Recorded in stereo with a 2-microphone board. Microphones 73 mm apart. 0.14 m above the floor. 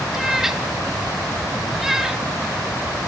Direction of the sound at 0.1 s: 5° right (ahead or behind).